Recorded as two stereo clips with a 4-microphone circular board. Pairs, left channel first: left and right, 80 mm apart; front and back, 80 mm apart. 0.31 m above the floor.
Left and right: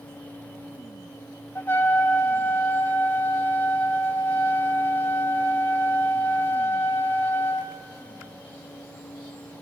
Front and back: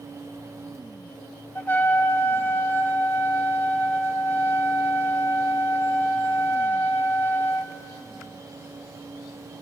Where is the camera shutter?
I don't hear a camera shutter.